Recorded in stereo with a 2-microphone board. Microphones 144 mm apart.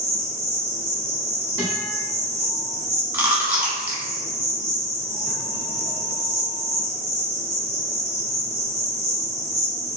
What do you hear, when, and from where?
0.0 s an insect: 35° left (ahead or behind), 1.3 m
1.6 s a guitar: 20° left (ahead or behind), 1.2 m
3.1 s chewing: 10° right (ahead or behind), 1.0 m